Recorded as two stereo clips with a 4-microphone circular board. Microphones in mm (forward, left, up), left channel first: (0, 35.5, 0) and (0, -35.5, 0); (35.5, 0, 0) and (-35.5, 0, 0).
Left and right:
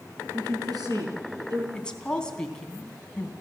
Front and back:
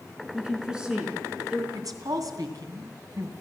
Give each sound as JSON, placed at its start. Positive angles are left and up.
{"t": 0.3, "sound": "a woman speaking", "azimuth_deg": -100, "distance_m": 5.0}
{"t": 1.7, "sound": "a woman speaking", "azimuth_deg": 165, "distance_m": 3.0}